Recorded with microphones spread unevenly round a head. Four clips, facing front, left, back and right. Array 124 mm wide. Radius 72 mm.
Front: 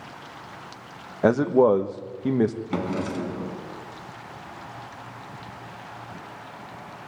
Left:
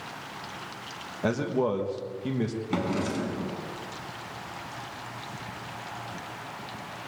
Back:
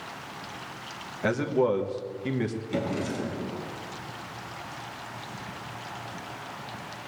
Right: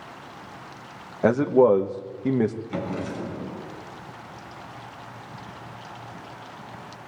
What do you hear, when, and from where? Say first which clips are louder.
1.2 s a man speaking: right 9 dB, front 7 dB; 35° right, 1.2 m
2.7 s a drawer: left 2 dB, front 2 dB; 50° left, 4 m